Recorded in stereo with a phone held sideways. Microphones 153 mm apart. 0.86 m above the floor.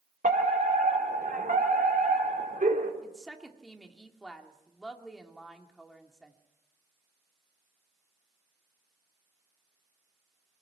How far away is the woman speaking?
About 2 m.